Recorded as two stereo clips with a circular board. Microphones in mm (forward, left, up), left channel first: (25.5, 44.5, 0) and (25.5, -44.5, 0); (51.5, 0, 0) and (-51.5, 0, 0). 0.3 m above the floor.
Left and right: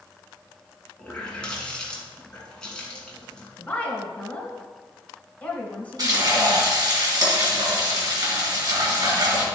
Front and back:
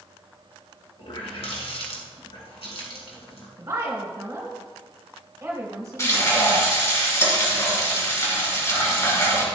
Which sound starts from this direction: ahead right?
Frying, at 6.0 s.